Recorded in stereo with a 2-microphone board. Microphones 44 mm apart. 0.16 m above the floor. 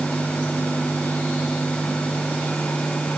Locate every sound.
Only background noise.